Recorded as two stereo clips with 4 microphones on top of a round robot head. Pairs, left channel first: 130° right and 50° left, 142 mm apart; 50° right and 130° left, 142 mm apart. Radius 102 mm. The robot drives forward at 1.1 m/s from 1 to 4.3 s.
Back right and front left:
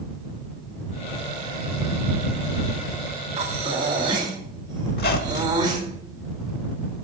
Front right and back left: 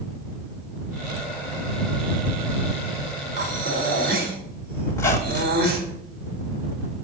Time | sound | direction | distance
3.4 | breathing | 95° left | 4 m
4.9 | a squeak | 120° right | 1.7 m